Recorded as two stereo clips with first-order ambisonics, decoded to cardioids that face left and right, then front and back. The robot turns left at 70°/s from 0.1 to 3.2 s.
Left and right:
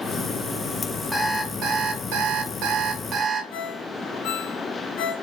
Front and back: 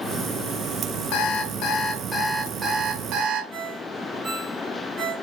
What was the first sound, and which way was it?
An alarm clock, 5° right.